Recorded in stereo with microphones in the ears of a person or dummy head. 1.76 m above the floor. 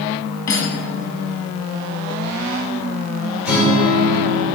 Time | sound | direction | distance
0.5 | cutlery clinking | 25° left (ahead or behind) | 2 m
3.5 | a guitar | 5° right (ahead or behind) | 3 m